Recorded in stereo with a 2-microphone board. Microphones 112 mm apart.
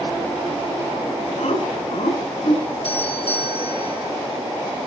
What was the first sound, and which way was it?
Laughter, 70° left (ahead or behind).